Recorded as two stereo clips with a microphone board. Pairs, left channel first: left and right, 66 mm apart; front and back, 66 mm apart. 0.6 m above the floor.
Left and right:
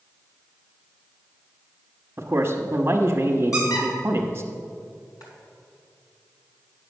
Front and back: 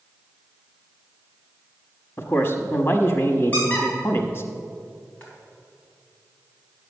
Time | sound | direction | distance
2.2 | a man speaking | 45° right | 0.9 m
3.5 | a squeak | 65° left | 3.5 m